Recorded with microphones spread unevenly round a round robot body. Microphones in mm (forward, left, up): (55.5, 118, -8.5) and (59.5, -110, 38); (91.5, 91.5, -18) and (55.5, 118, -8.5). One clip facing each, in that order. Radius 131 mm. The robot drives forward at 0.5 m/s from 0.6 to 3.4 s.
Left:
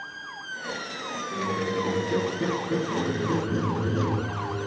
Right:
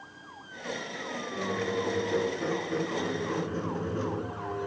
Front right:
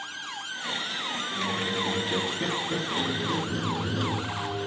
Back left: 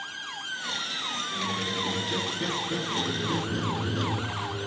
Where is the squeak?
35° left, 3 m; by 4.7 s 55° left, 2 m.